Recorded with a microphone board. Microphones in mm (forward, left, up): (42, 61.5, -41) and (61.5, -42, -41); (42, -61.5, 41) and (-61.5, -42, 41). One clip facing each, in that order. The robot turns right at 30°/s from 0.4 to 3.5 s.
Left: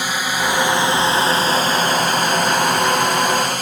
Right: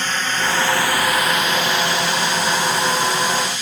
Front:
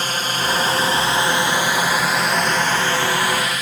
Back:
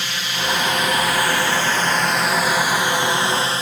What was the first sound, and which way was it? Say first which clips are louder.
A drone: left 1 dB, front 3 dB; 25° left.